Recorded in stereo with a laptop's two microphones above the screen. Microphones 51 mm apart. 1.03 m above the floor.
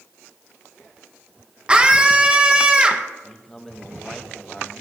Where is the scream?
20° right (ahead or behind), 1.1 m.